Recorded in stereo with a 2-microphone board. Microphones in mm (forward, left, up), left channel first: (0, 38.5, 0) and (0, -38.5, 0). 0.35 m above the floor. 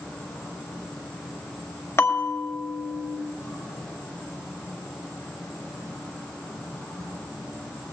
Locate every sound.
0.0 s an insect: 10° left (ahead or behind), 10 m
2.0 s a bell: 35° left (ahead or behind), 1.5 m